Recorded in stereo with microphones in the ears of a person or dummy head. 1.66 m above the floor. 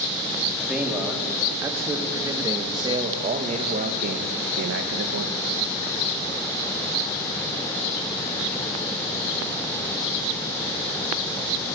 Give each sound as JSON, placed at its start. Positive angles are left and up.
{"t": 0.6, "sound": "a man speaking", "side_deg": -5, "distance_m": 3.5}